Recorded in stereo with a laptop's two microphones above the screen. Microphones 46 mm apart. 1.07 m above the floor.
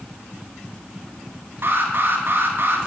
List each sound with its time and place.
1.6 s an alarm: 60° right (ahead or behind), 1.9 m